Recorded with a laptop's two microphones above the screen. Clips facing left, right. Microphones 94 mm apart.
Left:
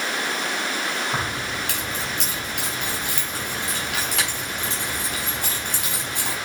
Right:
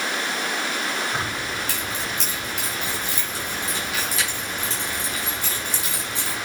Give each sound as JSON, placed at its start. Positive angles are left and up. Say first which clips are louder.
{"t": 1.1, "sound": "keys jangling", "louder": "left 1 dB", "side_deg": 65, "distance_m": 4.0}